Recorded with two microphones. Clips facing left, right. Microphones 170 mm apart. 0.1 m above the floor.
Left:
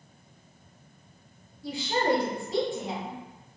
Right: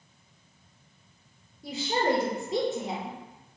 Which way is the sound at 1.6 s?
25° right (ahead or behind).